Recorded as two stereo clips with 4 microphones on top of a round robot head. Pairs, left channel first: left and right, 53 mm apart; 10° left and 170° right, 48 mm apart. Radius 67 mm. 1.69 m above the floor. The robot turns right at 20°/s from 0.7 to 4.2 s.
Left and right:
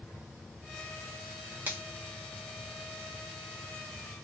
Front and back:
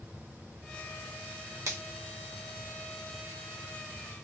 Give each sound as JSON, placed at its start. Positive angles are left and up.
{"t": 1.7, "sound": "a finger snap", "azimuth_deg": -150, "distance_m": 1.0}